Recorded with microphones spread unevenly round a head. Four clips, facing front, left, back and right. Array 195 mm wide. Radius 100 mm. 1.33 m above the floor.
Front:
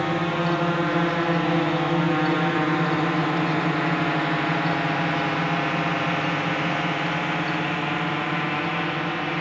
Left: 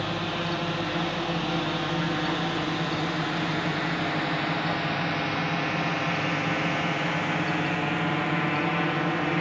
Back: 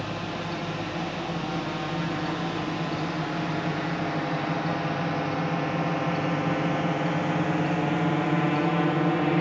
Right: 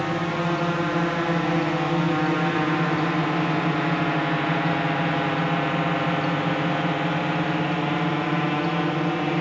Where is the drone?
30° right; by 9.4 s 155° right.